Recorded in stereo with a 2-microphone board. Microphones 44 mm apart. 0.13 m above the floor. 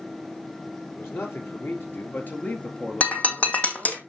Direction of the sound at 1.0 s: 65° left (ahead or behind).